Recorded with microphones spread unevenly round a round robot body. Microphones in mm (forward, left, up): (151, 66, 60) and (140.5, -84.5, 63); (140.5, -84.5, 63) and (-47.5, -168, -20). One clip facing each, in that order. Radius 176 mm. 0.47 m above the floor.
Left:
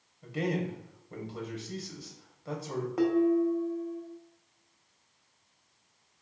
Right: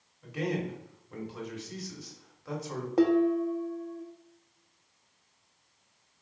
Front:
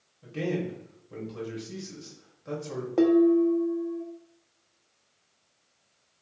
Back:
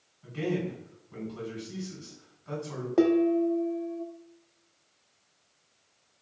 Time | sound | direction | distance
0.2 | a man speaking | 30° left | 1.8 m
3.0 | dishes clattering | 110° right | 0.6 m